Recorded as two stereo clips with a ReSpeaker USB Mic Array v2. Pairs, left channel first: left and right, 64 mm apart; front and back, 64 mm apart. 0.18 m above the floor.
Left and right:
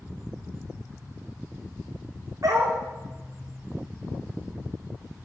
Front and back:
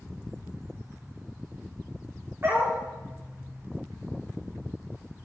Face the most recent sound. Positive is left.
turn(degrees=-125)